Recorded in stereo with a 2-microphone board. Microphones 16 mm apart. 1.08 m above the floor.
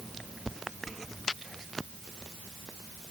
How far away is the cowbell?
No cowbell in this recording.